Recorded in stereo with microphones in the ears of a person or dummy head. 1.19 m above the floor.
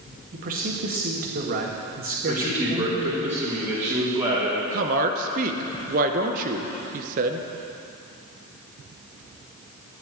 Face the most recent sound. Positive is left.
turn(degrees=-45)  # may be behind; listen again after turning